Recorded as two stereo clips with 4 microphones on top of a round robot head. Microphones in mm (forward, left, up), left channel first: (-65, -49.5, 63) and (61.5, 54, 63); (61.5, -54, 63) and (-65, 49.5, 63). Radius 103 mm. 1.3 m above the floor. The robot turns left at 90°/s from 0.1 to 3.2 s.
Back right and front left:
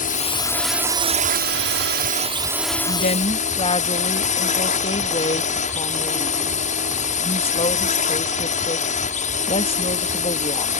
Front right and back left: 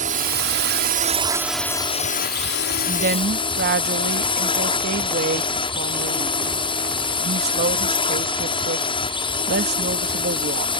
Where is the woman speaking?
165° right; by 10.7 s 160° left.